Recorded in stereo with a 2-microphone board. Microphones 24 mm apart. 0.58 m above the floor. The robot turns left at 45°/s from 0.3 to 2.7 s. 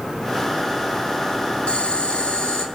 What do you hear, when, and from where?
1.7 s boiling: 120° left, 5.5 m; by 2.6 s 80° left, 5.5 m